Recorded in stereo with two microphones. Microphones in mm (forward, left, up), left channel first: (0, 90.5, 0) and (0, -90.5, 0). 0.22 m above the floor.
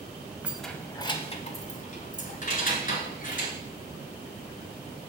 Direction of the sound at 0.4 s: 10° right (ahead or behind).